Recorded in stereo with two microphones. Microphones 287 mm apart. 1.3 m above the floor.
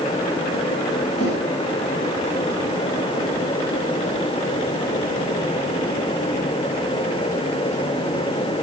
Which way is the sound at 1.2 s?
55° left (ahead or behind).